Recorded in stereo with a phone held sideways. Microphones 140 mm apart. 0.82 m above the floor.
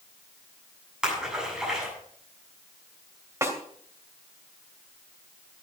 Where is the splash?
5° right (ahead or behind), 7.5 m.